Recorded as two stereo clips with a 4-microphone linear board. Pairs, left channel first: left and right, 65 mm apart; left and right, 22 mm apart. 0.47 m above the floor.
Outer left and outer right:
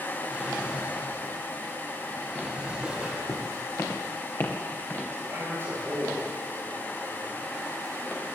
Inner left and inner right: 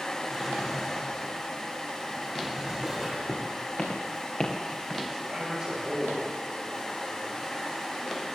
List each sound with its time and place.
0.3 s a drawer: 10° right (ahead or behind), 3.5 m
3.3 s footsteps: 60° left (ahead or behind), 2 m; by 5.0 s 35° left (ahead or behind), 2.5 m
5.1 s a man speaking: 30° right (ahead or behind), 8.5 m